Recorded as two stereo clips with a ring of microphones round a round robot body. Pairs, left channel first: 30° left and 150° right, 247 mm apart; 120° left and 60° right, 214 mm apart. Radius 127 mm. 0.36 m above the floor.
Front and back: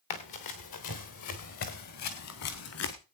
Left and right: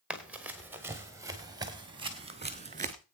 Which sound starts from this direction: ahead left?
Running footsteps, at 0.1 s.